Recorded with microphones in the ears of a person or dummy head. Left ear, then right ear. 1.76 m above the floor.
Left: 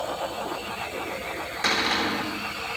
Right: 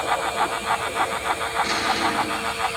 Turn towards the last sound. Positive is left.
turn(degrees=50)  # may be behind; listen again after turning